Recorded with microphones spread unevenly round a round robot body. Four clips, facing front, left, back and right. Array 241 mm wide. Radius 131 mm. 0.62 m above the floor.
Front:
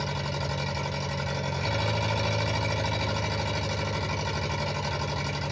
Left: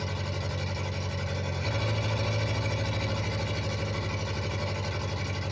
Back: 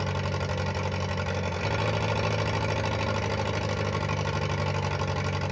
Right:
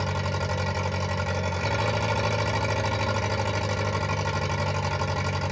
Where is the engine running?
115° right, 0.8 m.